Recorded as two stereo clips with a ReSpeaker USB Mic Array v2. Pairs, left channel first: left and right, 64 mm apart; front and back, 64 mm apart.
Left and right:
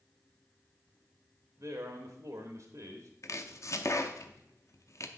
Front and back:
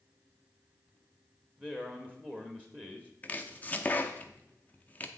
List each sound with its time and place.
1.6 s a man speaking: 115° right, 0.9 m
3.2 s chopping: 60° left, 0.6 m